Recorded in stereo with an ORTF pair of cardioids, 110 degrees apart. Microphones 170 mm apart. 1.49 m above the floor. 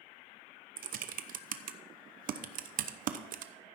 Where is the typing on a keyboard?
55° right, 0.8 m.